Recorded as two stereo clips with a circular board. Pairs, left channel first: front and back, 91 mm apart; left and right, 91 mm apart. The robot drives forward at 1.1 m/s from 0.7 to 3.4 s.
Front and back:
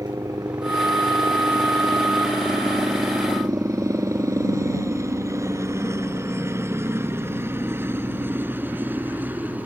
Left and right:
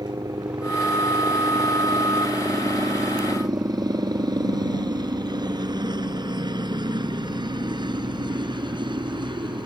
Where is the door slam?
I don't hear a door slam.